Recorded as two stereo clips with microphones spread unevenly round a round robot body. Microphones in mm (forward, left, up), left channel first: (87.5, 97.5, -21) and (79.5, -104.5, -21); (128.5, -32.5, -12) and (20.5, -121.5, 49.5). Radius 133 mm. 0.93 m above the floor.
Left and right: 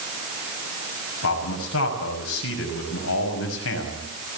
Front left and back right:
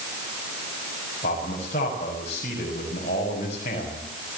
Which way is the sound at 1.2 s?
95° left.